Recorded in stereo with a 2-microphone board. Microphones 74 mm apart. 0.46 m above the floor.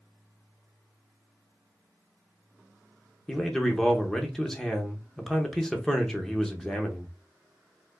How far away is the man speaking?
About 0.8 m.